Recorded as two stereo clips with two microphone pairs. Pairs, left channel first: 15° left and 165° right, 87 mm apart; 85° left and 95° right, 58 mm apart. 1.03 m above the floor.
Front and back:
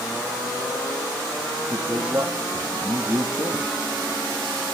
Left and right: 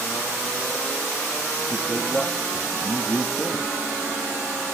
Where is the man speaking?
155° left, 1.9 m.